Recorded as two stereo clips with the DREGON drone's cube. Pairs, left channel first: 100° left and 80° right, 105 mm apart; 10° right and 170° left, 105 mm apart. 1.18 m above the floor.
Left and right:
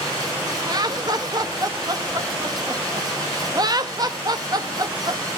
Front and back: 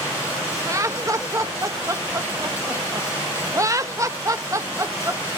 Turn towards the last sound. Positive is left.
turn(degrees=-130)